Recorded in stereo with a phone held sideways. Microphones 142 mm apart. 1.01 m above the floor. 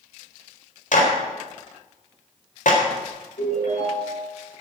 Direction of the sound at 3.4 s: 65° left (ahead or behind).